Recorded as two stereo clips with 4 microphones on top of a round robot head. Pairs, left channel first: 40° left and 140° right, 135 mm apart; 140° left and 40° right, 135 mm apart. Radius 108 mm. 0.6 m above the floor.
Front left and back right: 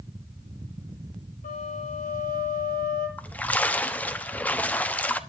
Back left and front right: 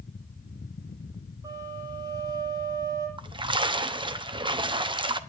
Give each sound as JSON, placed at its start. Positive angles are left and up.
{"t": 1.4, "sound": "a flute", "azimuth_deg": 25, "distance_m": 7.5}
{"t": 3.2, "sound": "a splash", "azimuth_deg": -35, "distance_m": 1.2}